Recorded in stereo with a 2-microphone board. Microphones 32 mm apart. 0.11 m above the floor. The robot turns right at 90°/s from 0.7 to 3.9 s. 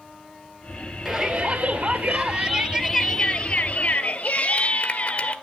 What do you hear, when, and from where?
1.1 s a shout: 175° right, 2 m; by 5.3 s 80° left, 2 m